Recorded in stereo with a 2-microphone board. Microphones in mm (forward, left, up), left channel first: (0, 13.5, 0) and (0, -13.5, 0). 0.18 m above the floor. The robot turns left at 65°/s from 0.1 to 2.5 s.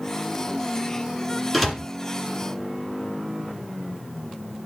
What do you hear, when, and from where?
1.5 s a door slam: 10° left (ahead or behind), 1.8 m; by 1.8 s 20° left (ahead or behind), 1.8 m